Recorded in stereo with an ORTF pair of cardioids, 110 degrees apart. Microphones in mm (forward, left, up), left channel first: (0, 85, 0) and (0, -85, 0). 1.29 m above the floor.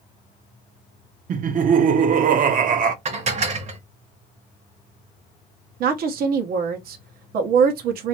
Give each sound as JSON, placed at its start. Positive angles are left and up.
{"t": 1.3, "sound": "laughter", "azimuth_deg": -55, "distance_m": 0.9}
{"t": 3.0, "sound": "dishes clattering", "azimuth_deg": -45, "distance_m": 1.1}
{"t": 5.8, "sound": "a woman speaking", "azimuth_deg": -65, "distance_m": 0.9}